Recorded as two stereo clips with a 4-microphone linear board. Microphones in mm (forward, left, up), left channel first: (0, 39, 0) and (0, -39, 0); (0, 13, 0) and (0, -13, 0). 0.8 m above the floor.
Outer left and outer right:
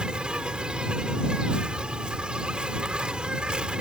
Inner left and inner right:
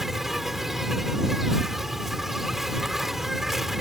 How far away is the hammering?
No hammering in this recording.